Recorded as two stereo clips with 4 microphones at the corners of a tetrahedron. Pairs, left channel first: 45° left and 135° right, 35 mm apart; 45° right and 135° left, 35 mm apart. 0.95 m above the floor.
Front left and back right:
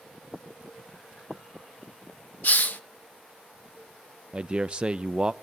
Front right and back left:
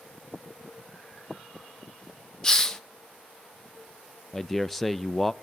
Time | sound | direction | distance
2.4 | a hiss | 30° left | 0.6 m
4.3 | a man speaking | 130° right | 0.6 m